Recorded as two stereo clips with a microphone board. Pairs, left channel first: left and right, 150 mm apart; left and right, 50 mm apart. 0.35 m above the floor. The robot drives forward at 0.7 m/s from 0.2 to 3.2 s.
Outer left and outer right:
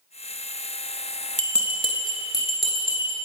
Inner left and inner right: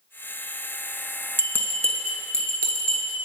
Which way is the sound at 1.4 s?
55° left (ahead or behind).